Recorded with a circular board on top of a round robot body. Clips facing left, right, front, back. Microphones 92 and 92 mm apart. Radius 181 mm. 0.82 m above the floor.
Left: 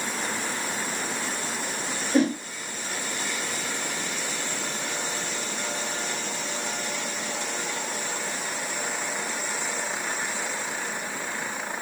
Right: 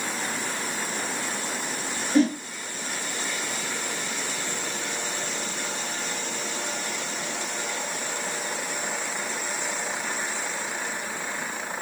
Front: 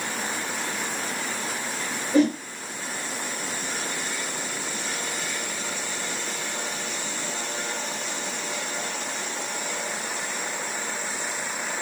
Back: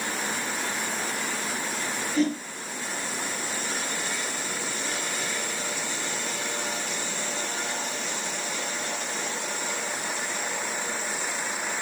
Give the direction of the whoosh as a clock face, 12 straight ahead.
11 o'clock.